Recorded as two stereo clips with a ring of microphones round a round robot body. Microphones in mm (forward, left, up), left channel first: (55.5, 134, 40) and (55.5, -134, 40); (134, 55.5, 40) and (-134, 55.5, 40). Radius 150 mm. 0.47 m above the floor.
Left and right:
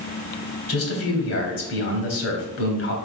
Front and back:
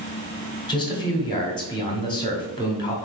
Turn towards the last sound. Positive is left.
turn(degrees=70)